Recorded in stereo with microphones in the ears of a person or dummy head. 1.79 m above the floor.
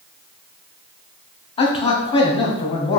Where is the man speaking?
35° left (ahead or behind), 0.6 m.